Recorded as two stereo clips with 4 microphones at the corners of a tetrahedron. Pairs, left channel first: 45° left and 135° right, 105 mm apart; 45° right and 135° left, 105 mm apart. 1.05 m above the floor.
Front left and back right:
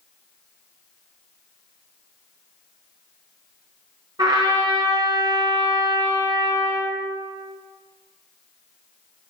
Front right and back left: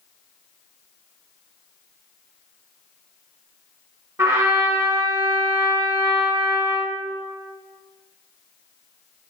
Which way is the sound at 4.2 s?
160° right.